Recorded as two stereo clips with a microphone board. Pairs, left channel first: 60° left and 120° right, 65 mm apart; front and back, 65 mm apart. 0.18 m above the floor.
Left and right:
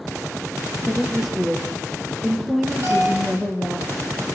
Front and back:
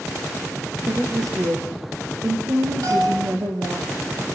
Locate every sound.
0.9 s a woman speaking: 150° left, 3 m
2.8 s a bell: 170° right, 7.5 m